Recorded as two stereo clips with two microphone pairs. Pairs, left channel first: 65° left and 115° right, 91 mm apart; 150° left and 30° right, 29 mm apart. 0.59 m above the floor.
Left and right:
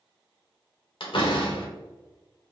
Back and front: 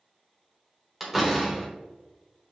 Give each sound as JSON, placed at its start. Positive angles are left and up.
{"t": 1.0, "sound": "a door slam", "azimuth_deg": 55, "distance_m": 1.2}